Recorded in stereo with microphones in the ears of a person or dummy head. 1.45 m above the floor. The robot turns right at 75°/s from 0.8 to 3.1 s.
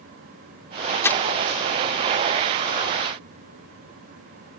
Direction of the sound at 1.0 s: 15° left (ahead or behind).